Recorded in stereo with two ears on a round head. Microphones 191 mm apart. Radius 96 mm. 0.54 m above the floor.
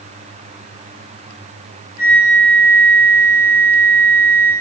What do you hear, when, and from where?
2.0 s a flute: 30° left (ahead or behind), 2.5 m